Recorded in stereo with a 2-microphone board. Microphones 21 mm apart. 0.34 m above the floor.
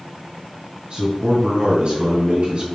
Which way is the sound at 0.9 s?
50° right (ahead or behind).